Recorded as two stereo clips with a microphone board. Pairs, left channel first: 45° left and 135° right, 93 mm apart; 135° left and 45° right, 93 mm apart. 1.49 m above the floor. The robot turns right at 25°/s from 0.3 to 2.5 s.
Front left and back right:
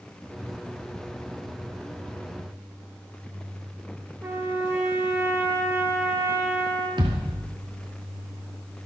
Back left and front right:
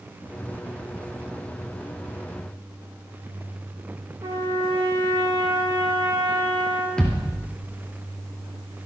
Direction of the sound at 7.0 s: 145° right.